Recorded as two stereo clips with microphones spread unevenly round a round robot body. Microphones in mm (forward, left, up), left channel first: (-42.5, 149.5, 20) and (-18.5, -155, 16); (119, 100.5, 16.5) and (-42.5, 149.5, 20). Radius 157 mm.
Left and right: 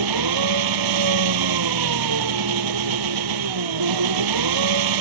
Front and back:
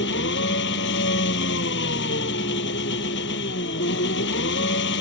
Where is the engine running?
60° right.